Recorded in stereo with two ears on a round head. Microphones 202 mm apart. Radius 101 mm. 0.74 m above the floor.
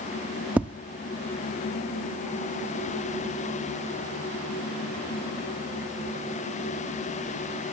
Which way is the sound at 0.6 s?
5° right (ahead or behind).